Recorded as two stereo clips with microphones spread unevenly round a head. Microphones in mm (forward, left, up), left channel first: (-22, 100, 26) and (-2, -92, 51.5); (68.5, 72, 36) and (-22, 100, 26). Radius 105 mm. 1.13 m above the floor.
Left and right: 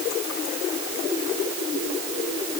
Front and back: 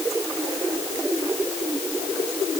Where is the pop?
No pop in this recording.